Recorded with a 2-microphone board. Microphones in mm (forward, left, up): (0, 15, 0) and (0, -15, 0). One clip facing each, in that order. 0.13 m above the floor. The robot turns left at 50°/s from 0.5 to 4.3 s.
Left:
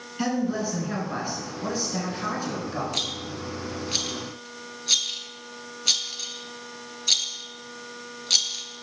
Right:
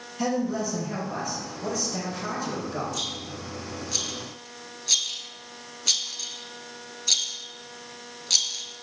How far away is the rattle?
About 0.5 m.